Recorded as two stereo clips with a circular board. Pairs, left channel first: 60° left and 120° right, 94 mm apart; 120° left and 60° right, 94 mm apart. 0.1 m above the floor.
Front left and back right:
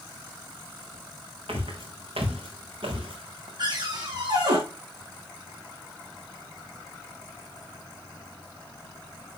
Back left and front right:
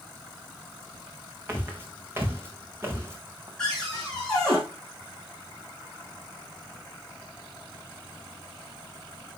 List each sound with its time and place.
1.5 s footsteps: 125° right, 6 m
3.6 s a cupboard door: 160° right, 4.5 m